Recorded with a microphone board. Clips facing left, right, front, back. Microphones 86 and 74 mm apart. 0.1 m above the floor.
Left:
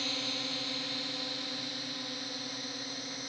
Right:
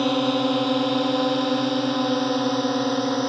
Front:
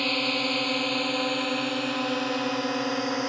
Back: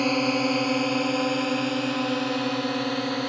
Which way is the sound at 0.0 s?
110° right.